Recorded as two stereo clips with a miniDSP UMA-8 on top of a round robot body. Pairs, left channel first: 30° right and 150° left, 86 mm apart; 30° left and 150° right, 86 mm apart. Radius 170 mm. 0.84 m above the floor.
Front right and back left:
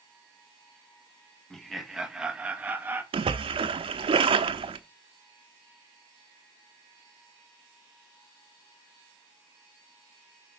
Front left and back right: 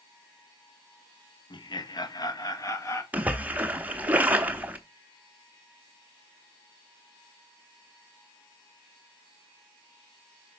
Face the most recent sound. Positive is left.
turn(degrees=135)